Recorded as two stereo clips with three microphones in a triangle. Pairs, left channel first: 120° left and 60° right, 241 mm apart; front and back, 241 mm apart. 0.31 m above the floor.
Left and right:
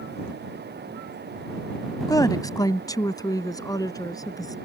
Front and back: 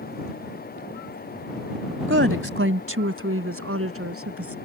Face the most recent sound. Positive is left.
turn(degrees=-165)